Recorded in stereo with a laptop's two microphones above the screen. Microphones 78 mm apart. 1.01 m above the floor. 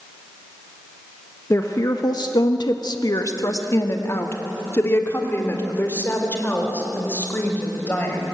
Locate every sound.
1.5 s a woman speaking: 40° left (ahead or behind), 1.3 m; by 8.2 s 25° left (ahead or behind), 6.5 m